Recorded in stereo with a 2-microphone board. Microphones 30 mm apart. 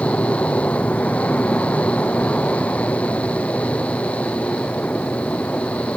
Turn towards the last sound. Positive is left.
turn(degrees=55)  # may be behind; listen again after turning